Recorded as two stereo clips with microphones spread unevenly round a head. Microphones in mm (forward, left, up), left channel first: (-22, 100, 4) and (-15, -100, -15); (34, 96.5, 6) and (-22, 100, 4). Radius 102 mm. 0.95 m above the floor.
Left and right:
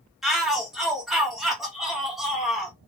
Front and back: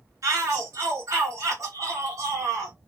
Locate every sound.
0.2 s a shout: 175° right, 1.4 m